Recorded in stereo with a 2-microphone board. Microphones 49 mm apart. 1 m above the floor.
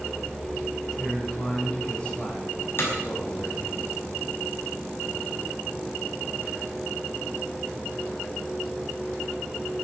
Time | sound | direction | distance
1.0 | a man speaking | 15° left (ahead or behind) | 6 m
2.8 | hammering | 45° left (ahead or behind) | 5 m